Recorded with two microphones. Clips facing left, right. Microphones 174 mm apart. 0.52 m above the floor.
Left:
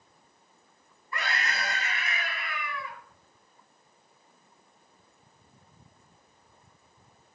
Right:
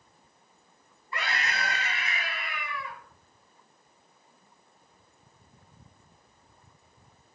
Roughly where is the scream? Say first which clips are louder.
Even; right.